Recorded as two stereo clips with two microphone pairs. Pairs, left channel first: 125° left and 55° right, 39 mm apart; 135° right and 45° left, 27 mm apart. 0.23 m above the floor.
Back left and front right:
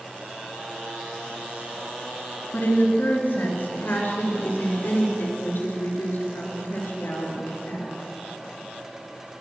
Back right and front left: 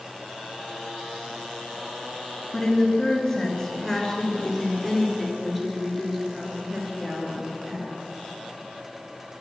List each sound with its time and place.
2.5 s a woman speaking: 150° left, 3 m; by 7.9 s 115° left, 4.5 m